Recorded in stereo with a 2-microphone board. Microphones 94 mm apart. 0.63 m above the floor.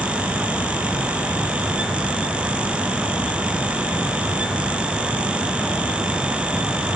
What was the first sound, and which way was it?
Only background noise.